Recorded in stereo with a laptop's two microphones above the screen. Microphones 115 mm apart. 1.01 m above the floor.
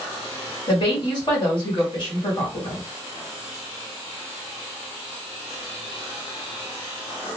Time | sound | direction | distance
0.7 | a woman speaking | 45° left (ahead or behind) | 1.7 m